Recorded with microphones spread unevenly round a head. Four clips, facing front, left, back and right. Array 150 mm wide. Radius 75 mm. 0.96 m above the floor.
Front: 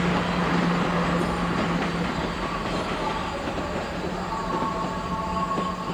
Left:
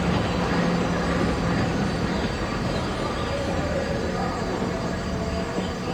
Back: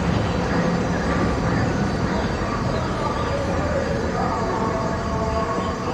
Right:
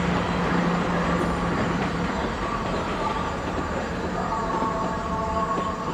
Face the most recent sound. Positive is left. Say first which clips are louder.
# even, back 1 dB
turn(degrees=170)